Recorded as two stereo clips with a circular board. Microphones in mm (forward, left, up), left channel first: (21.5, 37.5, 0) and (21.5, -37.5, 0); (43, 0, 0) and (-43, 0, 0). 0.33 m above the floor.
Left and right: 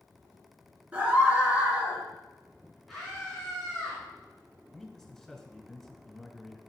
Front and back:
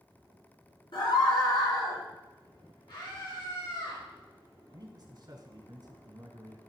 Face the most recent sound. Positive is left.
turn(degrees=170)